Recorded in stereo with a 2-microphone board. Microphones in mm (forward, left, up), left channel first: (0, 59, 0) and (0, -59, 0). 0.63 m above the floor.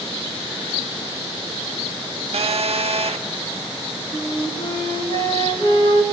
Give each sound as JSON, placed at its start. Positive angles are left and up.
{"t": 2.3, "sound": "a phone buzzing", "side_deg": -65, "distance_m": 0.9}
{"t": 4.1, "sound": "a flute", "side_deg": 50, "distance_m": 3.5}